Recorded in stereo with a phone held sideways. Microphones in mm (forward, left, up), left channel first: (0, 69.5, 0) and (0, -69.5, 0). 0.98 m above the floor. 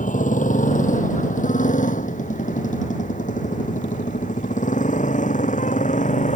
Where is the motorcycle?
65° left (ahead or behind); by 6.4 s 60° left (ahead or behind).